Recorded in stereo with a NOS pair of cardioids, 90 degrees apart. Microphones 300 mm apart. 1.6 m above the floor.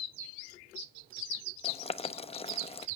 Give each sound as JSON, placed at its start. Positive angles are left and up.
{"t": 1.6, "sound": "boiling", "azimuth_deg": 20, "distance_m": 0.7}